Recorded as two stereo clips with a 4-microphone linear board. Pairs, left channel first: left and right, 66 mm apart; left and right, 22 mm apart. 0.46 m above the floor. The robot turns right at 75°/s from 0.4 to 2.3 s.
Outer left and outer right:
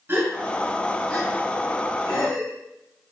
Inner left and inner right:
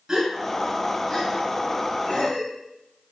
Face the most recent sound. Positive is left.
turn(degrees=65)  # may be behind; listen again after turning